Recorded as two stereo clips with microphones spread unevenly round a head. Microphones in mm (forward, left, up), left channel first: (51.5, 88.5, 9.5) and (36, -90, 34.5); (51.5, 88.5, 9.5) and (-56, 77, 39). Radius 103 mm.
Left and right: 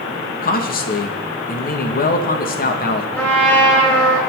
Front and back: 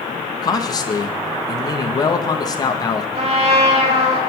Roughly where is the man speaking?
Ahead left.